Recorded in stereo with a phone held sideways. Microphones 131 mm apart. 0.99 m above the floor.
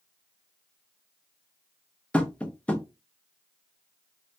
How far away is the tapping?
About 0.5 m.